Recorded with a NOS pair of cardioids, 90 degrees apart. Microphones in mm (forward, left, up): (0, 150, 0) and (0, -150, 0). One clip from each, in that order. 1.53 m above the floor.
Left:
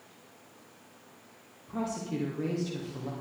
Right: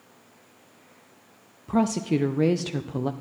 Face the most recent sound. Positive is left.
turn(degrees=-65)